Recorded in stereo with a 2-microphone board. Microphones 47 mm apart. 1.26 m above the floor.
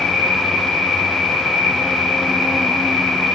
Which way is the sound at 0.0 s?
10° right (ahead or behind).